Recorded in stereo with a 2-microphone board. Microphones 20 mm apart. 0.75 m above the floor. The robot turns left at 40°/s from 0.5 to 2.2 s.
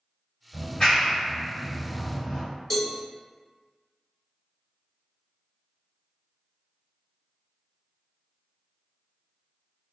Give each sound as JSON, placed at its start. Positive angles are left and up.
{"t": 0.5, "sound": "a clap", "side_deg": 30, "distance_m": 1.9}
{"t": 2.7, "sound": "a cowbell", "side_deg": 15, "distance_m": 1.1}